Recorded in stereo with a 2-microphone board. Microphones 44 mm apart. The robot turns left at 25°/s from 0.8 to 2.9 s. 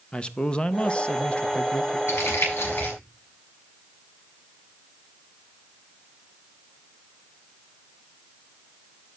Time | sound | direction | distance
0.1 | a man speaking | 25° left (ahead or behind) | 0.6 m
2.1 | crumpling | 75° left (ahead or behind) | 7 m